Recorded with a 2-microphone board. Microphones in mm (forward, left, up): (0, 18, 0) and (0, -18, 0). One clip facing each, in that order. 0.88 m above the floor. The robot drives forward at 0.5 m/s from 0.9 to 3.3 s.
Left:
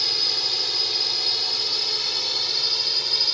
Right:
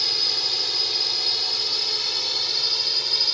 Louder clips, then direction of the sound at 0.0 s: Even; 5° left (ahead or behind).